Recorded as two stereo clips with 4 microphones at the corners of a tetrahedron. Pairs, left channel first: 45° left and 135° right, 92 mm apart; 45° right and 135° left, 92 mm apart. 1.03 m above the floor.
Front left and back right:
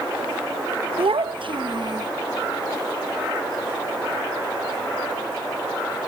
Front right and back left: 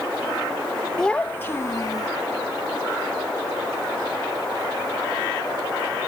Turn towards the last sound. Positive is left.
turn(degrees=-95)